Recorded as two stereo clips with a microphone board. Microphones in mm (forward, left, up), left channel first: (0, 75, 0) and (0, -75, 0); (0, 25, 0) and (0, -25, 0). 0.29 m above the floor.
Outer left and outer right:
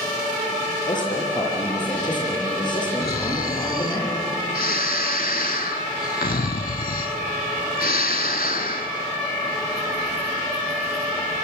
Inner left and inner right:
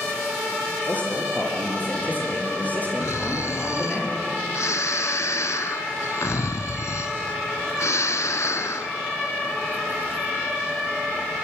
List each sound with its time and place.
0.9 s a man speaking: 30° left (ahead or behind), 5.5 m
3.0 s snoring: 80° left, 0.9 m